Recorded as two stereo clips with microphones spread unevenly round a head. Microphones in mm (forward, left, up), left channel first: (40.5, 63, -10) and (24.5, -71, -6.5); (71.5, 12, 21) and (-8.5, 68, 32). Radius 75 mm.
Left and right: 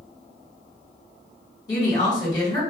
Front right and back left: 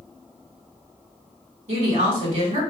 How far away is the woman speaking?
About 1.9 m.